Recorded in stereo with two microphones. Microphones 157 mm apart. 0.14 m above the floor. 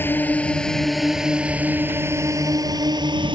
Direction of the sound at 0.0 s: 10° left (ahead or behind).